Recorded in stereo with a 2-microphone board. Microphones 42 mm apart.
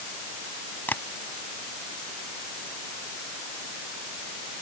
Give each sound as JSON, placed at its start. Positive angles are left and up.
{"t": 0.9, "sound": "tapping", "side_deg": 50}